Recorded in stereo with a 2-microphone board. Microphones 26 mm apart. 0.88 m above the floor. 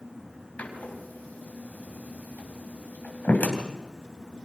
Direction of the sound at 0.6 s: 90° left.